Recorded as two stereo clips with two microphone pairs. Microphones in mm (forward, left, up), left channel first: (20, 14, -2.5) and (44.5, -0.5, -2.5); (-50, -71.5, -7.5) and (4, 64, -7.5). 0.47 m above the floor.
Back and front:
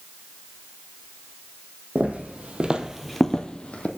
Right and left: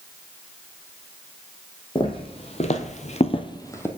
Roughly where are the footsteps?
Ahead right.